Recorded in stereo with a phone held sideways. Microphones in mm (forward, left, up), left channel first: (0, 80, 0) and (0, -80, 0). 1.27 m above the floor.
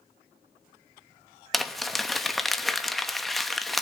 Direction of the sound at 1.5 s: Centre (ahead or behind).